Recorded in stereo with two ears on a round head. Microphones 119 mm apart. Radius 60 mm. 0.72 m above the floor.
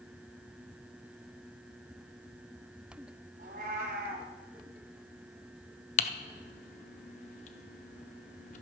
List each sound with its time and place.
3.4 s a cat meowing: 65° right (ahead or behind), 1.8 m
6.0 s typing on a keyboard: 55° left (ahead or behind), 0.7 m